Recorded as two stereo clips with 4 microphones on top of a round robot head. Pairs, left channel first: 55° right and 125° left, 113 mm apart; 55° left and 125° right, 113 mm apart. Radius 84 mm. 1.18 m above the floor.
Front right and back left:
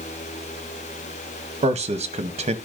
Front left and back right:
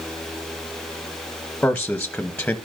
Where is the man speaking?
135° left, 1.1 m.